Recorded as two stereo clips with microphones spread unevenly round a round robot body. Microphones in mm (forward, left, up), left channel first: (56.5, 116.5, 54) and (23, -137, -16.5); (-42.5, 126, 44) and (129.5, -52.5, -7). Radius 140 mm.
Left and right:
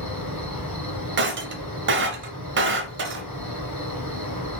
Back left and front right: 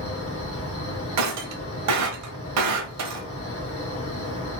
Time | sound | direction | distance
0.0 | an insect | 165° right | 2.5 m
1.2 | breaking glass | 55° right | 0.6 m